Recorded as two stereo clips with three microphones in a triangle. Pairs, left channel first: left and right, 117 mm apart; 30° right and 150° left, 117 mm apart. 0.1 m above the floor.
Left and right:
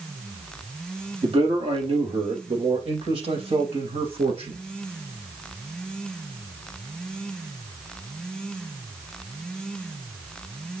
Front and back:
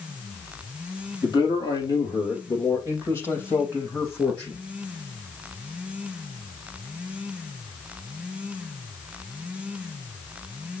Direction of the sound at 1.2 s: 70° right.